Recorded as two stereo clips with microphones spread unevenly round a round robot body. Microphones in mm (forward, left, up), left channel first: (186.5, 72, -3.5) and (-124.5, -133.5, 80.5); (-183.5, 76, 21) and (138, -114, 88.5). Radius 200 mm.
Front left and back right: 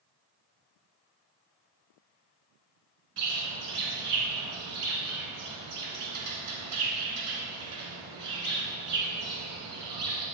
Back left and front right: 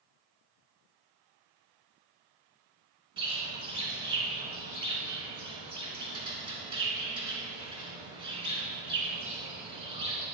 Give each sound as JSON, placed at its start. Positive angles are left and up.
{"t": 3.2, "sound": "a bird", "azimuth_deg": -105, "distance_m": 2.5}